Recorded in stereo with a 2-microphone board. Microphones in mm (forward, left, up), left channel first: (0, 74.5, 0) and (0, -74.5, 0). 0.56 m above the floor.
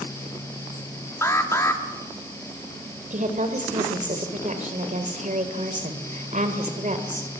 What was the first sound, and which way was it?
An alarm, 20° left (ahead or behind).